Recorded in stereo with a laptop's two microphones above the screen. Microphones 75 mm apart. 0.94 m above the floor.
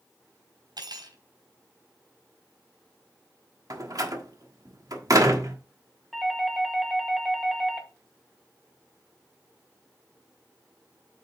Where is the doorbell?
Centre (ahead or behind), 1.4 m.